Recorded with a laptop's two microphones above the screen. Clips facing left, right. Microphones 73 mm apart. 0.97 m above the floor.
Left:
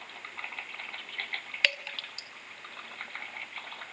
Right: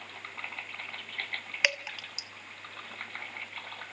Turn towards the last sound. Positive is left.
turn(degrees=-10)  # may be behind; listen again after turning